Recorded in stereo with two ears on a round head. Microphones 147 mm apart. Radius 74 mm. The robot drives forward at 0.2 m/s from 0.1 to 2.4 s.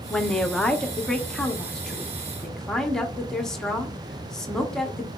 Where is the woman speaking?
5° left (ahead or behind), 0.6 m.